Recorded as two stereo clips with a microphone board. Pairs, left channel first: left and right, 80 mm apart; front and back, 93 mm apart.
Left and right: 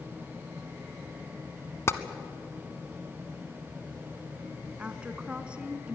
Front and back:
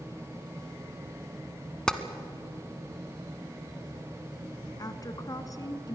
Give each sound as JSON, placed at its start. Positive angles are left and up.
{"t": 1.9, "sound": "tapping", "azimuth_deg": 75, "distance_m": 1.1}
{"t": 4.8, "sound": "a woman speaking", "azimuth_deg": -20, "distance_m": 1.4}